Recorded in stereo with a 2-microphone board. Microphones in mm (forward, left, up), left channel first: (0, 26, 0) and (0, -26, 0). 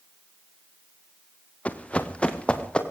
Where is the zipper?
I don't hear a zipper.